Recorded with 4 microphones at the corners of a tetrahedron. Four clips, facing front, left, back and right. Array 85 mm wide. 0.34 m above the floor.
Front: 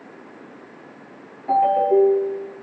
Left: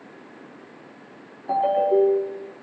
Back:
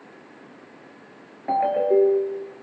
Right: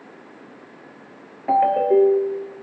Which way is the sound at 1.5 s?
115° right.